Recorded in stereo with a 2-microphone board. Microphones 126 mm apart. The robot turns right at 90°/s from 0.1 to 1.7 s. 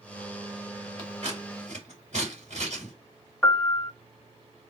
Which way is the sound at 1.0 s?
40° right (ahead or behind).